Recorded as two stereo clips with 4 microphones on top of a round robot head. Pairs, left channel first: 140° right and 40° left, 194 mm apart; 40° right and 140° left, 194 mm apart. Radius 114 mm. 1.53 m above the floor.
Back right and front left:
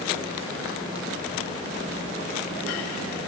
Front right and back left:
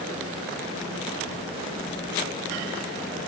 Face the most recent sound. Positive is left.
No sound to turn to.